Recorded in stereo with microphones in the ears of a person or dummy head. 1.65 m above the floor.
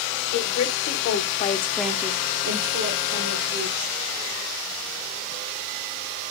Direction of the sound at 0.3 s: 70° left (ahead or behind).